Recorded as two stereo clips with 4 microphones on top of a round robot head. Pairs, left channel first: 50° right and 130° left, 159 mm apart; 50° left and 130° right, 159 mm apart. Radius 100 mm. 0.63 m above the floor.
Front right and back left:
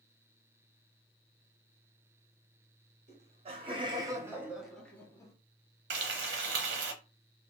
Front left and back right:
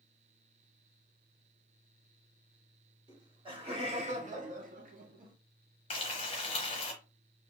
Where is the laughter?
170° left, 1.6 m; by 5.3 s 115° right, 1.2 m.